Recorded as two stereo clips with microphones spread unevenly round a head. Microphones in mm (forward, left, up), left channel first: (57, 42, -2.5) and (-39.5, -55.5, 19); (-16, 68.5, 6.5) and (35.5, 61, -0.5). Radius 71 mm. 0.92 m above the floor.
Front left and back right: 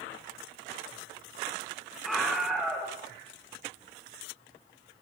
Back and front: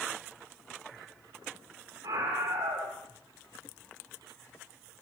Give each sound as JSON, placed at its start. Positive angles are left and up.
{"t": 2.0, "sound": "a scream", "azimuth_deg": -45, "distance_m": 3.0}